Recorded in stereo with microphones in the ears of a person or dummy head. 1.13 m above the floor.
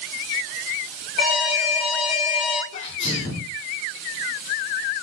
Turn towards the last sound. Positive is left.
turn(degrees=35)  # may be behind; listen again after turning